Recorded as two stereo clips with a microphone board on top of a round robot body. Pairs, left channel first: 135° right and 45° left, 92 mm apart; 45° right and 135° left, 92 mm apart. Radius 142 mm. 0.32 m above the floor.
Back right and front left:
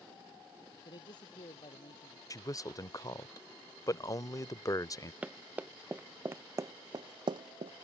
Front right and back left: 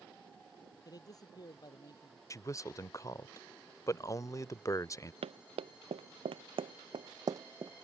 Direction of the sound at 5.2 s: 120° left.